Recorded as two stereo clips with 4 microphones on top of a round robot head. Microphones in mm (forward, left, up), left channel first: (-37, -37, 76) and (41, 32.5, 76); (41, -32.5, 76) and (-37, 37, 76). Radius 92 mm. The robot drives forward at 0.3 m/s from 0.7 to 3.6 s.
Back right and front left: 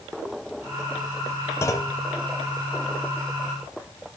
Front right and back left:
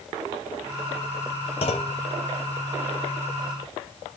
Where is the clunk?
75° right, 0.6 m; by 2.0 s 90° right, 0.5 m.